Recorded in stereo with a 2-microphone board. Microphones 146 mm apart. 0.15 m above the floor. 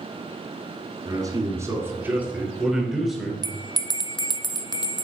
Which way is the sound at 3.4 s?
30° left (ahead or behind).